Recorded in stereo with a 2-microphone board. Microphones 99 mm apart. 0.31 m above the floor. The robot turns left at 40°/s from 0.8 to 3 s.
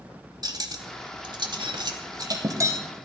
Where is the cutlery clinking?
45° right (ahead or behind), 0.9 m; by 2.8 s 30° right (ahead or behind), 0.9 m.